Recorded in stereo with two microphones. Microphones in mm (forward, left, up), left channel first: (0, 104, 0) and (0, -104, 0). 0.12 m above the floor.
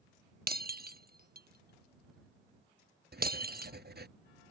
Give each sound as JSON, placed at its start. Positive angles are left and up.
{"t": 0.5, "sound": "breaking glass", "side_deg": -50}
{"t": 3.1, "sound": "writing", "side_deg": -50}